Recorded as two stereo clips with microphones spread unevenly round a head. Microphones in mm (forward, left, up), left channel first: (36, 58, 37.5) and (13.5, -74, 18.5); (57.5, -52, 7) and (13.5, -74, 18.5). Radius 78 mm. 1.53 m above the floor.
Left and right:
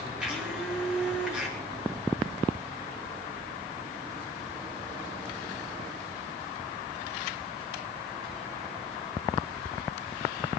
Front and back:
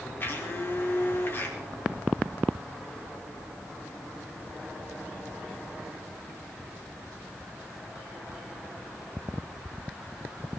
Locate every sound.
0.2 s a blender: 15° right, 4.5 m